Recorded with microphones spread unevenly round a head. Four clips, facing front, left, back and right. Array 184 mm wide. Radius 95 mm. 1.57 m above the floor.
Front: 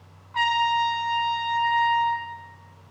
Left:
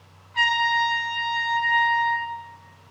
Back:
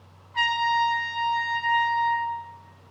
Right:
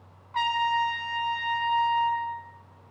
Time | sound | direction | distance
0.3 | a trumpet | 40° right | 3 m